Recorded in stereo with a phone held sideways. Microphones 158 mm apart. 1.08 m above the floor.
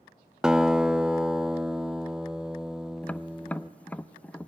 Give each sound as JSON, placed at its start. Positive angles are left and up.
{"t": 0.4, "sound": "a guitar", "side_deg": -5, "distance_m": 0.5}
{"t": 3.0, "sound": "tapping", "side_deg": 10, "distance_m": 0.5}